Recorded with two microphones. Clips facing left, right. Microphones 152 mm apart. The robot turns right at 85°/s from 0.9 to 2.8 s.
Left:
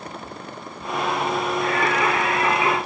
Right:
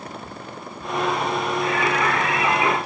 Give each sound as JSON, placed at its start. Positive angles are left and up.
{"t": 1.6, "sound": "singing", "azimuth_deg": 125, "distance_m": 5.0}